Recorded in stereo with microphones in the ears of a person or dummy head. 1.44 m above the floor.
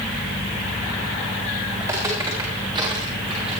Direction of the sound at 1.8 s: 15° right (ahead or behind).